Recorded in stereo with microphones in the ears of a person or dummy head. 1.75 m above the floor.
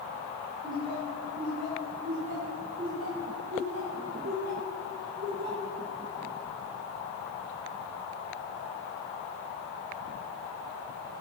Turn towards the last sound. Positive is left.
turn(degrees=-55)  # may be behind; listen again after turning